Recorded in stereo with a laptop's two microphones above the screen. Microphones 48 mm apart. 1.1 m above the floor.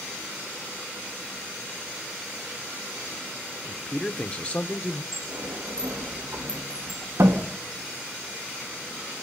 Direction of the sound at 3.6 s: Centre (ahead or behind).